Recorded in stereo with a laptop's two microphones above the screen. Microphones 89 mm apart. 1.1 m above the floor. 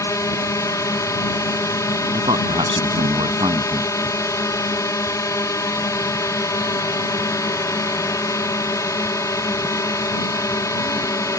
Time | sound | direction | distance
0.0 | a drone | 40° left (ahead or behind) | ?
2.1 | a man speaking | 80° right | ?